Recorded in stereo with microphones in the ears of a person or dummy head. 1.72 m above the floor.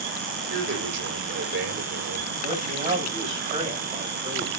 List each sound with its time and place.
0.5 s a man speaking: 60° right (ahead or behind), 5 m
2.4 s a man speaking: 40° right (ahead or behind), 9 m